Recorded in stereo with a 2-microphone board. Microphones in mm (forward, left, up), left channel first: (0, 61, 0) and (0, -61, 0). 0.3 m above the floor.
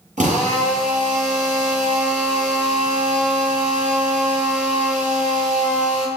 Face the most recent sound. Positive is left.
turn(degrees=-80)